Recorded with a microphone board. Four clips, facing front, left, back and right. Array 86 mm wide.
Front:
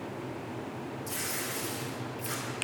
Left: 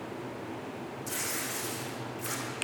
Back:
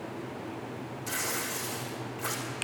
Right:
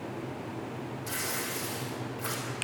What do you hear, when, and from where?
1.1 s tearing paper: 155° right, 4 m